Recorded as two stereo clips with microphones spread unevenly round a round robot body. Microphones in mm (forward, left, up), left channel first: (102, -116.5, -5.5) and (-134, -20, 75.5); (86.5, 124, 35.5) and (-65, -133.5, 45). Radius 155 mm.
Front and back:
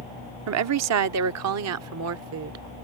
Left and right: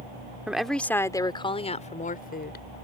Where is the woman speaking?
155° left; by 2.6 s 110° left.